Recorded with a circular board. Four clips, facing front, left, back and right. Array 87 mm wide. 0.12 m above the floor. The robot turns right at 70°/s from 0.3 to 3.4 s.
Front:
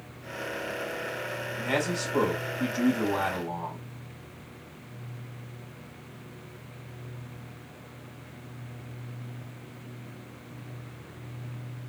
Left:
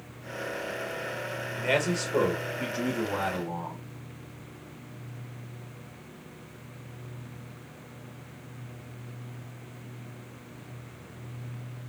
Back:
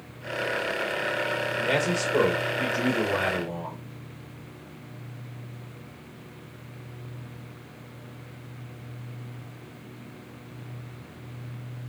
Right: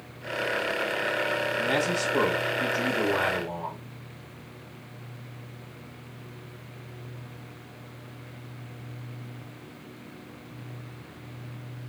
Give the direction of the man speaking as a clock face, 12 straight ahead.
9 o'clock.